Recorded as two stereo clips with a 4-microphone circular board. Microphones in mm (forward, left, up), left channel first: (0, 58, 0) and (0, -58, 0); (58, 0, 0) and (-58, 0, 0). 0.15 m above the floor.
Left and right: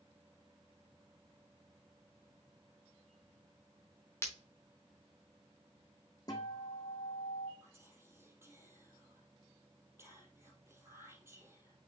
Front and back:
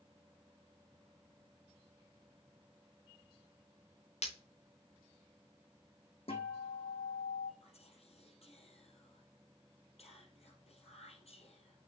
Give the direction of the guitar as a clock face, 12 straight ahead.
11 o'clock.